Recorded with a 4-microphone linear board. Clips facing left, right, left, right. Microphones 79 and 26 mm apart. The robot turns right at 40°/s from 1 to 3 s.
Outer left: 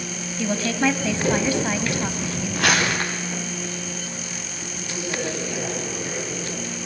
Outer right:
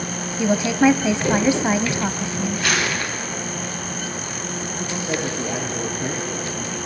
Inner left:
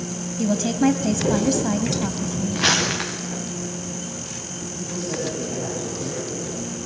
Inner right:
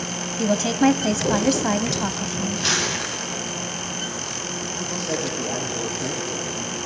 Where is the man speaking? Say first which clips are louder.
Outer right 2 dB, even; 40° right (ahead or behind), 8.5 m.